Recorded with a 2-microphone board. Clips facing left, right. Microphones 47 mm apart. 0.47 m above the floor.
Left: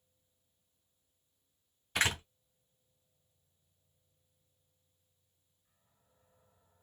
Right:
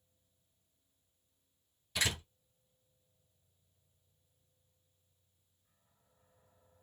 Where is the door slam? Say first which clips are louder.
Left 4 dB; 45° left (ahead or behind), 1.9 m.